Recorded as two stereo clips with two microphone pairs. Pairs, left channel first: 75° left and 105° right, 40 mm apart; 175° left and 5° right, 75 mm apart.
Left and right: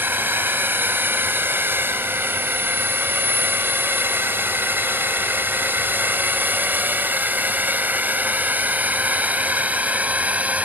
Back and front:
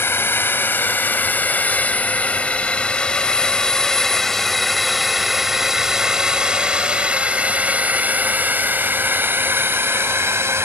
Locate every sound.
0.0 s a drone: 130° right; by 10.7 s 55° right